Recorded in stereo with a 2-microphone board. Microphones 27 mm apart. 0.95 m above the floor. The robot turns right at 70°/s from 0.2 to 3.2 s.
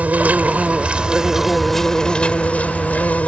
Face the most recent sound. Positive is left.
turn(degrees=110)